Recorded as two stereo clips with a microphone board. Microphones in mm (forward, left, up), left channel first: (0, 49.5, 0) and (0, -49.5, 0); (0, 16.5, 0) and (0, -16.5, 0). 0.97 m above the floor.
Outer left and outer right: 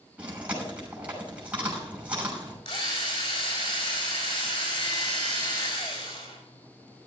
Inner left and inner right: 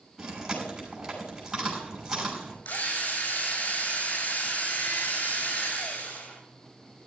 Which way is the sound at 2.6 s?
80° left.